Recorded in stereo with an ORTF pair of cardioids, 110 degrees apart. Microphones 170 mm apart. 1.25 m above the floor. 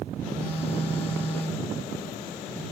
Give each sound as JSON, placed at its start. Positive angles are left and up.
{"t": 0.4, "sound": "a phone buzzing", "azimuth_deg": 10, "distance_m": 4.0}